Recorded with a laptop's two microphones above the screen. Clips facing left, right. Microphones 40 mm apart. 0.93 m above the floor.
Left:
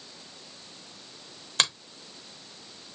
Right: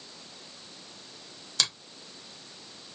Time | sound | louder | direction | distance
1.6 | a finger snap | left 4 dB | 50° left (ahead or behind) | 0.8 m